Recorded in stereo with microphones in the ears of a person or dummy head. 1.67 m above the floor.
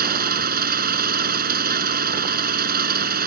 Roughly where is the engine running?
Right.